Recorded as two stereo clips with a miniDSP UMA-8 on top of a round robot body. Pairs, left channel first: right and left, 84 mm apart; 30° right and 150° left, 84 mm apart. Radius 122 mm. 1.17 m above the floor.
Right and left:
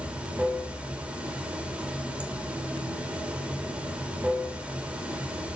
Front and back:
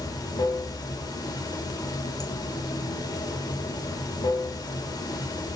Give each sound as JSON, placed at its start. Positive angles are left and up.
{"t": 0.0, "sound": "running water", "azimuth_deg": 10, "distance_m": 3.0}